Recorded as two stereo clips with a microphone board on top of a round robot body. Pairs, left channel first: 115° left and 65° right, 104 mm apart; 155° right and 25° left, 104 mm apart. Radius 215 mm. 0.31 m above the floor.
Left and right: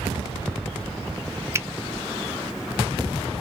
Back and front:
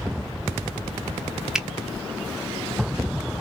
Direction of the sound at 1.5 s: 55° right.